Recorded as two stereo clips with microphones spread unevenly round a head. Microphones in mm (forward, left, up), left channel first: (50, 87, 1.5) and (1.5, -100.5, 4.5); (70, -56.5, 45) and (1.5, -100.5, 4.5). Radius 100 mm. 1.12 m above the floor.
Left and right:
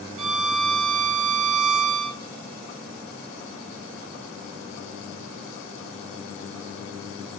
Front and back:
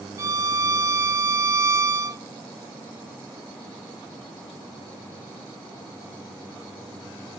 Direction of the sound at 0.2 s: 95° right.